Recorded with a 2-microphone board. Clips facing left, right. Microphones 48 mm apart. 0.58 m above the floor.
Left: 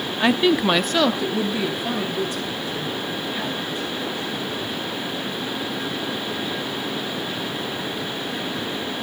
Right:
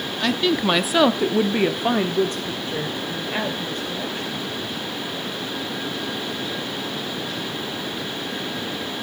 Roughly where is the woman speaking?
Left.